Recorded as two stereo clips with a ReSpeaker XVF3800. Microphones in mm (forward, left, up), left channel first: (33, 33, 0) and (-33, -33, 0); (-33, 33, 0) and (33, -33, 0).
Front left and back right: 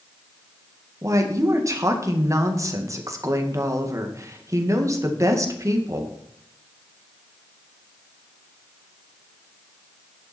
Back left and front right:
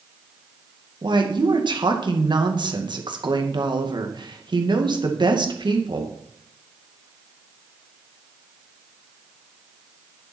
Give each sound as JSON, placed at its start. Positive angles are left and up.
{"t": 1.0, "sound": "a woman speaking", "azimuth_deg": -80, "distance_m": 2.0}